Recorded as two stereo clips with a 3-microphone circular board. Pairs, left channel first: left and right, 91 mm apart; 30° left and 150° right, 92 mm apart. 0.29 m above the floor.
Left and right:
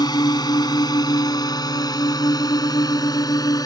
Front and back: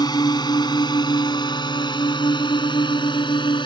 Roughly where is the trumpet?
No trumpet in this recording.